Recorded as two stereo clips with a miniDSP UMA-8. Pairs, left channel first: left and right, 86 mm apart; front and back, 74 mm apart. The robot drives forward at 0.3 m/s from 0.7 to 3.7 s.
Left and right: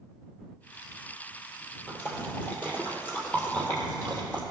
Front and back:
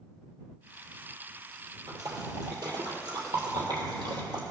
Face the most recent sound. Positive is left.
turn(degrees=160)